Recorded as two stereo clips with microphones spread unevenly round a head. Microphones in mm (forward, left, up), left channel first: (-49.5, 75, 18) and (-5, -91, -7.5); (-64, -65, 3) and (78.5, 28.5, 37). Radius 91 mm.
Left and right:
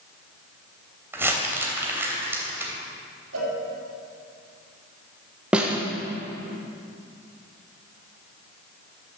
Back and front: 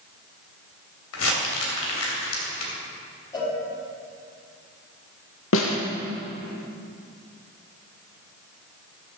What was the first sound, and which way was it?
Crumpling, 155° right.